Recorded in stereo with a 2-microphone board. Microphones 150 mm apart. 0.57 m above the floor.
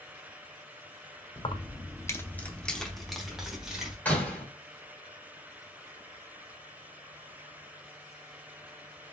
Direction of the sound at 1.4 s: 35° left (ahead or behind).